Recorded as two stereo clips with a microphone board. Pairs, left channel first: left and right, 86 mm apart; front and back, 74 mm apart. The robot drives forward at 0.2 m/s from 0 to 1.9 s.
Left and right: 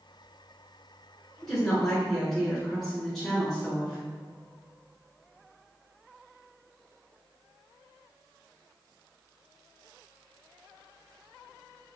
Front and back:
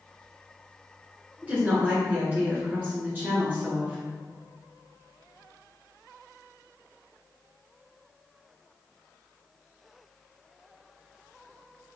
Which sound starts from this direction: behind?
A woman speaking, at 1.4 s.